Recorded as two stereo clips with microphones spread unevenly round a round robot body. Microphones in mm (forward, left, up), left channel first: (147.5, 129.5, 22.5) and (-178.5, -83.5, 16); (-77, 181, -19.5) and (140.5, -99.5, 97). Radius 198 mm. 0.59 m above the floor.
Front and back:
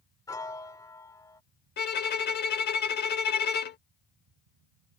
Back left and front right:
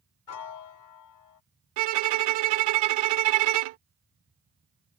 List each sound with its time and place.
0.3 s a piano: 115° left
1.8 s a violin: 35° right